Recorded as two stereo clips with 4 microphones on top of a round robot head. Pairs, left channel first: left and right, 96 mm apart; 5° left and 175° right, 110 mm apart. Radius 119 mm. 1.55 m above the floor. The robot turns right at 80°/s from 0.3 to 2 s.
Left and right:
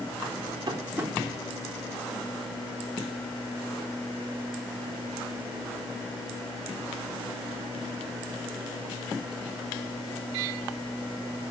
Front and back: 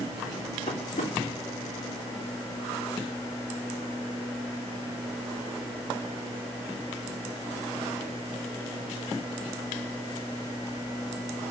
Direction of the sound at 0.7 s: 40° right.